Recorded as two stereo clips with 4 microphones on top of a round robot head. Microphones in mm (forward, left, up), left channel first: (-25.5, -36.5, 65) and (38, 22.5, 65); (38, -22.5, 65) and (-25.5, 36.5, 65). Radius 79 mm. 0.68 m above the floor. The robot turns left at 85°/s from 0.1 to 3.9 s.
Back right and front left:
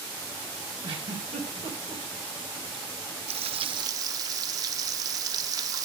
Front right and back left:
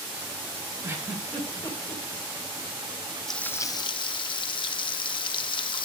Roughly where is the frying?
Ahead left.